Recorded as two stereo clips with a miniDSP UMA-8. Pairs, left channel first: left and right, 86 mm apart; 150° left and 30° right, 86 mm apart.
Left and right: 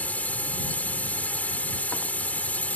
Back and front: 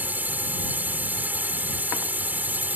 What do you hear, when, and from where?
0.0 s a drone: 30° left